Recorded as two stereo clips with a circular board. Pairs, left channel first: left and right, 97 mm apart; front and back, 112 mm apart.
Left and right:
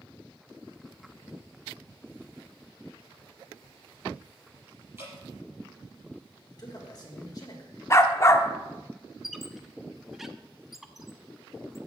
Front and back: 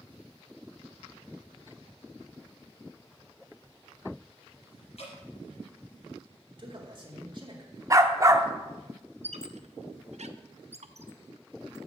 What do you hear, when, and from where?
5.0 s dripping: 25° right, 5.5 m
6.5 s a man speaking: 135° left, 2.0 m
7.9 s a dog barking: 135° left, 0.7 m
9.2 s a squeak: 175° right, 0.5 m